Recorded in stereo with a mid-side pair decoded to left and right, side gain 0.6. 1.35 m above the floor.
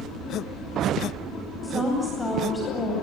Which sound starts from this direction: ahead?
A woman speaking, at 1.6 s.